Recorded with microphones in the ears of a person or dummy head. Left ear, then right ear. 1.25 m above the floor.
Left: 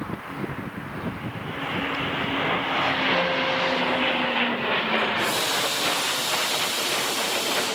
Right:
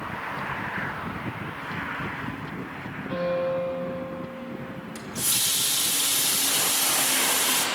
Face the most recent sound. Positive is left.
turn(degrees=-55)  # may be behind; listen again after turning